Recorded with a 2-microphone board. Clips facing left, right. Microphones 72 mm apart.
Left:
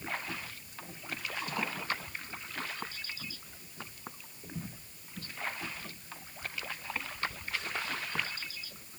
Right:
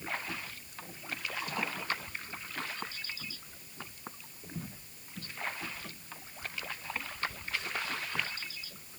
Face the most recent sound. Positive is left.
No sound to turn to.